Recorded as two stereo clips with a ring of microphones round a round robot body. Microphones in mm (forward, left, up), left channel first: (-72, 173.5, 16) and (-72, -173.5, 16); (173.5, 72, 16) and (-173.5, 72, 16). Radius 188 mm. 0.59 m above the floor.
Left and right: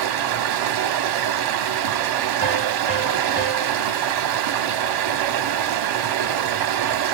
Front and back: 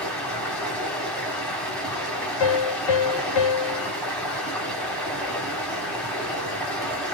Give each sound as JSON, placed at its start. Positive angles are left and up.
{"t": 0.0, "sound": "running water", "azimuth_deg": -85, "distance_m": 0.8}
{"t": 2.4, "sound": "a piano", "azimuth_deg": 20, "distance_m": 0.8}